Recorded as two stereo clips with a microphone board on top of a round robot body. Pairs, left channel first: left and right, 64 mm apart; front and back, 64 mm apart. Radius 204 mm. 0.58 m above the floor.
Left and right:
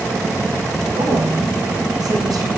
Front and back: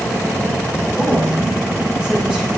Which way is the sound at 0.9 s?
100° right.